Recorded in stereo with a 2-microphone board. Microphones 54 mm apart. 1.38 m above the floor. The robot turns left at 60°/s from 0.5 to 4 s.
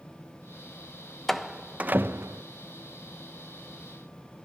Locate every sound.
1.3 s a door slam: 5° left (ahead or behind), 1.1 m; by 2.4 s 65° right (ahead or behind), 1.1 m